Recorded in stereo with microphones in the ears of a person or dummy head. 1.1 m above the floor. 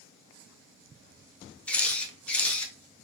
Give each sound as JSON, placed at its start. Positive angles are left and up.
{"t": 1.7, "sound": "a camera shutter", "side_deg": 10, "distance_m": 0.9}